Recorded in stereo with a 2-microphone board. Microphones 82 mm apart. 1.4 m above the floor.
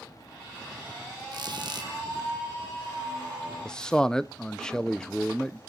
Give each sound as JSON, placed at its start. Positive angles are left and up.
{"t": 1.3, "sound": "a squeak", "side_deg": -60, "distance_m": 1.7}
{"t": 3.6, "sound": "a man speaking", "side_deg": 10, "distance_m": 0.6}